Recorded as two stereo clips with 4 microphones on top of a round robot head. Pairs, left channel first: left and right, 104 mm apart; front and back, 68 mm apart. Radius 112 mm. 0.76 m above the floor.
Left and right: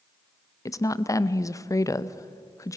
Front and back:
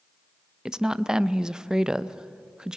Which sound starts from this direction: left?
A woman speaking, at 0.7 s.